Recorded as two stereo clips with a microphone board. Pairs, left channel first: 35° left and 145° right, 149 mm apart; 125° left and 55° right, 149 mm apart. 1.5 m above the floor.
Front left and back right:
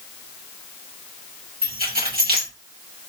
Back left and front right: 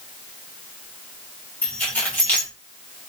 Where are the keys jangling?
155° right, 1.5 m.